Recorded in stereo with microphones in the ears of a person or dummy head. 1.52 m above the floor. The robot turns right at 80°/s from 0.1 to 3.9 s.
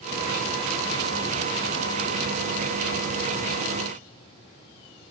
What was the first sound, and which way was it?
Only background noise.